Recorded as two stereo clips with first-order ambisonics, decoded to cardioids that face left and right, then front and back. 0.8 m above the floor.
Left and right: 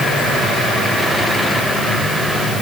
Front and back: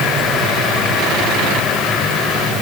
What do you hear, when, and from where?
Only background noise.